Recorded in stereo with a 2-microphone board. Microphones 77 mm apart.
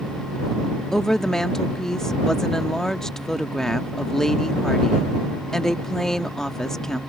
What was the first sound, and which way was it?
A woman speaking, 5° left (ahead or behind).